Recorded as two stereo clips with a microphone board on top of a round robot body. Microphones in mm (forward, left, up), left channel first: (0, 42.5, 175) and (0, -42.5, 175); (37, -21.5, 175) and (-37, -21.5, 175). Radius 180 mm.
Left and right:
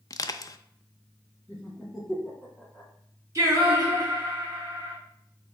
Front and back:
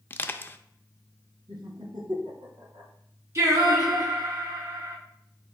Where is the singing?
140° right, 2 m.